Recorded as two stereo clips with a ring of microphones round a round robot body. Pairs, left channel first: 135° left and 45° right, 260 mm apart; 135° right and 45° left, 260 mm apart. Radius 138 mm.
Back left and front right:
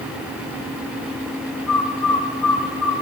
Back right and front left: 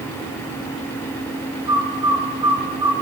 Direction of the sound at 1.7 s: 120° left.